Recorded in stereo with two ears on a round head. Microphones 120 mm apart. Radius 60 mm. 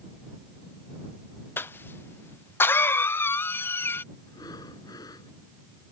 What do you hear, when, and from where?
1.6 s a cough: 15° left (ahead or behind)
4.3 s breathing: 25° left (ahead or behind)